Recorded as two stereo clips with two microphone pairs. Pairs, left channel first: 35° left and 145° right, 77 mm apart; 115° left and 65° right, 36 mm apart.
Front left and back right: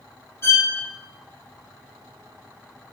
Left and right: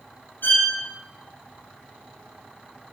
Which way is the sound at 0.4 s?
90° left.